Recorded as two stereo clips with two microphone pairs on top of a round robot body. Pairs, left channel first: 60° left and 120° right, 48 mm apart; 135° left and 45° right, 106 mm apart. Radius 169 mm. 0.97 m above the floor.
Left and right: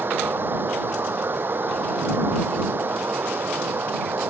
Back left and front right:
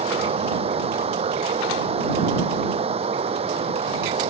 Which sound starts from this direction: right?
Running water, at 0.0 s.